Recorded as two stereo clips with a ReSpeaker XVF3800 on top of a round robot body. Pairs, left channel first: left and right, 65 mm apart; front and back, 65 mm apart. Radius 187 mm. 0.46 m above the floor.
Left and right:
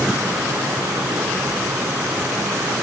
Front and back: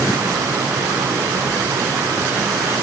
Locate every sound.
Only background noise.